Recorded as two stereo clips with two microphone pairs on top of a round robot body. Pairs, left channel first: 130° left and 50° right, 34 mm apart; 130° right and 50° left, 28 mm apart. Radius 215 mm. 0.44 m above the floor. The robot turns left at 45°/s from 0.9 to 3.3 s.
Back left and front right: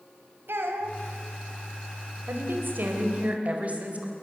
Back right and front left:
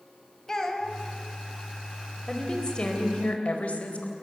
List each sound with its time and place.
0.5 s a child speaking: 55° right, 3 m; by 1.0 s 60° right, 3 m
2.3 s a woman speaking: 50° right, 3.5 m; by 4.1 s 95° right, 3.5 m